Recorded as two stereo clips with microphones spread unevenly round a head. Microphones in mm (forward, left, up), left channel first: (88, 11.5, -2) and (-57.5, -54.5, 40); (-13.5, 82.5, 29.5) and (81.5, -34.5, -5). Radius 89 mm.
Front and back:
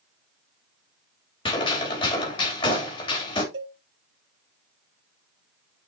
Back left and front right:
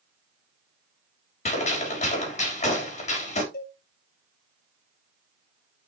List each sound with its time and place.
1.4 s a gunshot: 85° left, 3.5 m
3.5 s a cowbell: 175° left, 2.5 m